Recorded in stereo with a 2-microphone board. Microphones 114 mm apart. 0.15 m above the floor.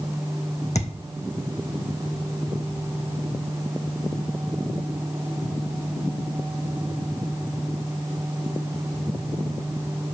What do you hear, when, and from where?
0.8 s a thud: 85° left, 1.3 m